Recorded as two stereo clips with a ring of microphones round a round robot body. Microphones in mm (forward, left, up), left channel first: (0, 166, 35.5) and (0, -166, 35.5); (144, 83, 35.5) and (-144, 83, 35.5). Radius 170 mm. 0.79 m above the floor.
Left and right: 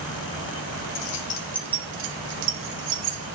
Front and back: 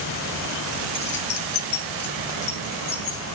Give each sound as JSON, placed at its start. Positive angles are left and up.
{"t": 0.9, "sound": "keys jangling", "azimuth_deg": 60, "distance_m": 0.8}